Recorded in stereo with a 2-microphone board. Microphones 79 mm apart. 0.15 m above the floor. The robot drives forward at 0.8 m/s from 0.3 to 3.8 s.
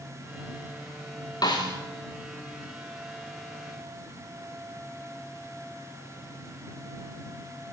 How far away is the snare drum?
About 4.5 m.